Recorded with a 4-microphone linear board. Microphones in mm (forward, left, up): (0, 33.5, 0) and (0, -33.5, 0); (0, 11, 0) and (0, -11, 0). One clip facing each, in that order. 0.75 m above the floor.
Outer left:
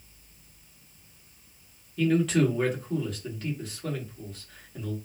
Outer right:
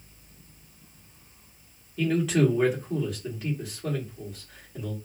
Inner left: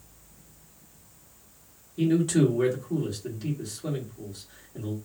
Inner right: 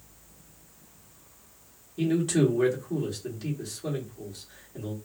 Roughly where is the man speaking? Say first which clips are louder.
Even, inner left 2 dB; centre.